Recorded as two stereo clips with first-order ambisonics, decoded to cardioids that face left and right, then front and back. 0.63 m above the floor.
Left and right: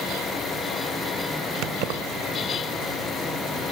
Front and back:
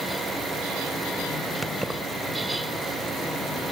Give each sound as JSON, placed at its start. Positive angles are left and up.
{"t": 1.6, "sound": "keys jangling", "azimuth_deg": -95, "distance_m": 1.4}